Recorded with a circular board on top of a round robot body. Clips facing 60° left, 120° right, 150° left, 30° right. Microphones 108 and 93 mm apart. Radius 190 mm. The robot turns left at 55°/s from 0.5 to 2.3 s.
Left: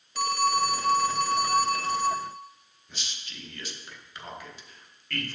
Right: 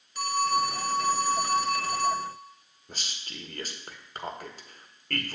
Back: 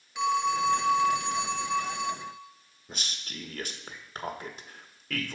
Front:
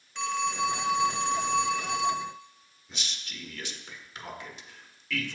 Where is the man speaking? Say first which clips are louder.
Right 2 dB, back 2 dB; 165° right, 1.4 m.